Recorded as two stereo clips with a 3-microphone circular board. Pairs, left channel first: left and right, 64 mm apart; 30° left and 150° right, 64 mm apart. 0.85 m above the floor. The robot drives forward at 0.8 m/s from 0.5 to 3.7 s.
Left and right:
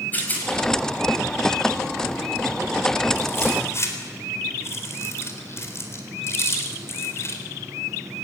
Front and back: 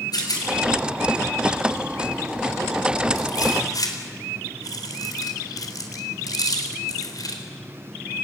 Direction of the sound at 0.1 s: 25° left.